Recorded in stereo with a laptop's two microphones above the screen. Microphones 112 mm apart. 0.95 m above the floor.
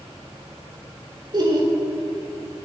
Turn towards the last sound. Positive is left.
turn(degrees=-45)  # may be behind; listen again after turning